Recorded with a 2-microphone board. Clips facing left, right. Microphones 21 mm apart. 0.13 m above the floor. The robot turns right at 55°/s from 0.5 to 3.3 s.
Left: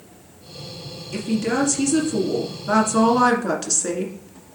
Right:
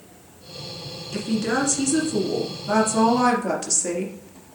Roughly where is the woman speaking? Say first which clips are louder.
Left 1 dB; ahead right.